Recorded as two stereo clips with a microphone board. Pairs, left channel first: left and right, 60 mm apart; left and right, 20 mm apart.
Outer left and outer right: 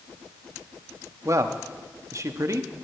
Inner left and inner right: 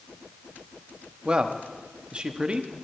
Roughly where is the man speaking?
Right.